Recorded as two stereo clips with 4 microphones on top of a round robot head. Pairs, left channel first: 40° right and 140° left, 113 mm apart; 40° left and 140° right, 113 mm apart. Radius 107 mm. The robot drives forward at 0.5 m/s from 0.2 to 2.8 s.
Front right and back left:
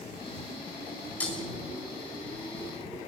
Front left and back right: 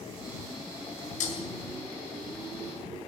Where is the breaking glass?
40° left, 6 m.